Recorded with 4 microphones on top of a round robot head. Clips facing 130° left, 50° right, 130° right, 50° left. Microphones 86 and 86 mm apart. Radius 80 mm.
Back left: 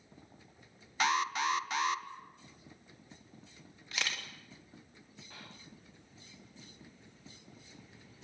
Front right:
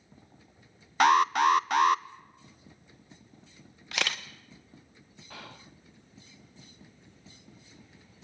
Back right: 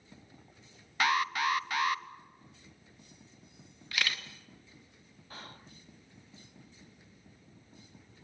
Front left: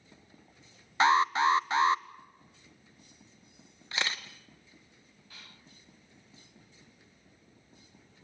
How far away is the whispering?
About 0.7 m.